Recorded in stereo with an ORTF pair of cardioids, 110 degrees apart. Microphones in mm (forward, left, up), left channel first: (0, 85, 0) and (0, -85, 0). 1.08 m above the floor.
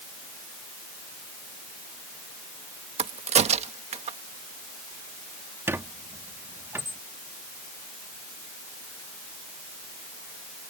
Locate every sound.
3.0 s a crack: 40° right
5.7 s a squeak: 15° right